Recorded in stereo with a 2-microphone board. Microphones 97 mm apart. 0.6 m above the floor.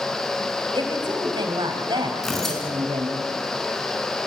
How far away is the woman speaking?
About 4 m.